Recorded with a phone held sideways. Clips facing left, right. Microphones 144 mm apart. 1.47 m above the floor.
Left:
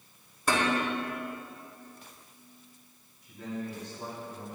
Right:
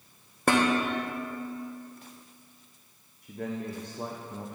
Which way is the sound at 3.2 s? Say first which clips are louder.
Right 3 dB; 60° right (ahead or behind).